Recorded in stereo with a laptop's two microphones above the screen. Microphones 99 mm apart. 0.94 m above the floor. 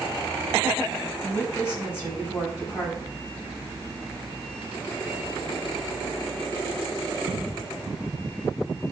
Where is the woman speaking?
25° left (ahead or behind), 4.5 m.